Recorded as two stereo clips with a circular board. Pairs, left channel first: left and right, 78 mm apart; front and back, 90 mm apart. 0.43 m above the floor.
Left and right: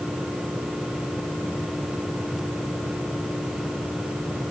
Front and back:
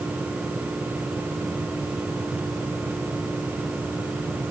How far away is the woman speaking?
I don't hear a woman speaking.